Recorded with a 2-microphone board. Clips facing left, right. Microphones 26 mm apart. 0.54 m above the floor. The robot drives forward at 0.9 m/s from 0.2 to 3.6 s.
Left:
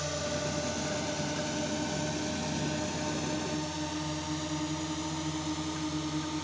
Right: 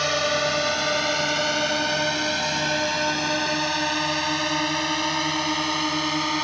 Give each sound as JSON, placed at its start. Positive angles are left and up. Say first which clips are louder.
{"t": 0.0, "sound": "a drone", "louder": "right 11 dB", "side_deg": -60}